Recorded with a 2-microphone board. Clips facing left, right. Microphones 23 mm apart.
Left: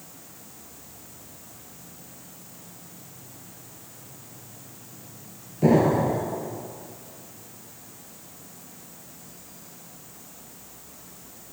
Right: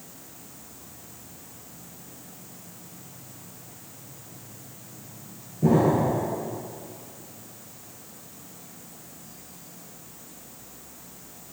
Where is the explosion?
55° left (ahead or behind), 1.7 m.